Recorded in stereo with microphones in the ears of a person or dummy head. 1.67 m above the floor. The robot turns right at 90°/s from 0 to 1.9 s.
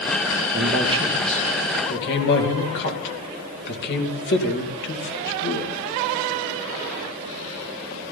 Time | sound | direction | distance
0.5 | a man speaking | 65° right (ahead or behind) | 2.5 m